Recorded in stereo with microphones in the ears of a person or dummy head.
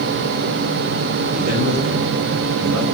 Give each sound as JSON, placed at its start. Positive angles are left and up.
{"t": 1.3, "sound": "a man speaking", "side_deg": -45, "distance_m": 1.2}